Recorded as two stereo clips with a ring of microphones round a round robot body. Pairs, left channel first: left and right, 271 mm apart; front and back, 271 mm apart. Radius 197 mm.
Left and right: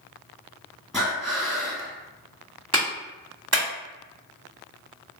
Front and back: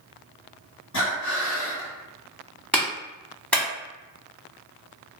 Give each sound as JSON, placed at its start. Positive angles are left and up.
{"t": 0.9, "sound": "breathing", "azimuth_deg": 0, "distance_m": 1.6}
{"t": 2.7, "sound": "a clap", "azimuth_deg": -85, "distance_m": 1.5}